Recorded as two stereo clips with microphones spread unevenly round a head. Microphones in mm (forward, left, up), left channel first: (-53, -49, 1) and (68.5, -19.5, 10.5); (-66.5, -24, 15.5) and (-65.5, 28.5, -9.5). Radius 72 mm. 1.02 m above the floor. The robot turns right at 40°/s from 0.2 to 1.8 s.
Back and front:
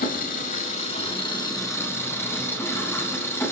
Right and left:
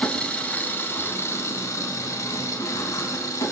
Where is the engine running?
160° right, 4 m; by 3.5 s 95° right, 4 m.